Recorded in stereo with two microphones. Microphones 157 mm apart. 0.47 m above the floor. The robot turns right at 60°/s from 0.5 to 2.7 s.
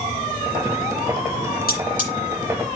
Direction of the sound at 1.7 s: 75° left (ahead or behind).